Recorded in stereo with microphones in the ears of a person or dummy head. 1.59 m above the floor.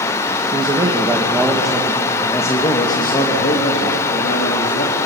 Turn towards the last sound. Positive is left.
turn(degrees=50)  # may be behind; listen again after turning